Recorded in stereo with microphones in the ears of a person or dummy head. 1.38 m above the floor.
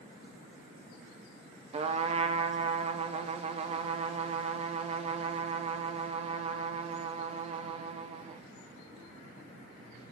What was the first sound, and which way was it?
A trumpet, 35° right (ahead or behind).